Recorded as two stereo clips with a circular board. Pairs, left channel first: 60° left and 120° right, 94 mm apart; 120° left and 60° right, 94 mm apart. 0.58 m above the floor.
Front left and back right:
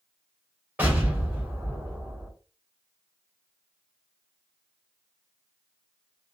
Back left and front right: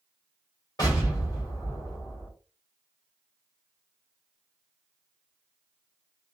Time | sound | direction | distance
0.8 | an explosion | 170° left | 1.6 m